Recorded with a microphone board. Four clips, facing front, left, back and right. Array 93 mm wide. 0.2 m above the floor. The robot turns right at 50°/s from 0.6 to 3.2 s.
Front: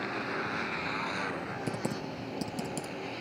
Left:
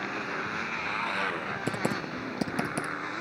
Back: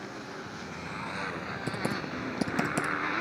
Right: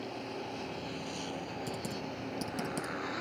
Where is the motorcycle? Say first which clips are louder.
Left 6 dB, front 6 dB; 70° left; by 3.2 s 165° left.